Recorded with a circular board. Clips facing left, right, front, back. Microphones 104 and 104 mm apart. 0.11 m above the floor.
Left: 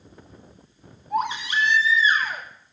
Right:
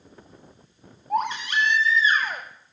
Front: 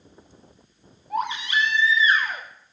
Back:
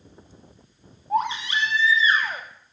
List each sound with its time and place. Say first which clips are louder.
1.1 s a baby crying: even, back 2 dB; 120° right, 3 m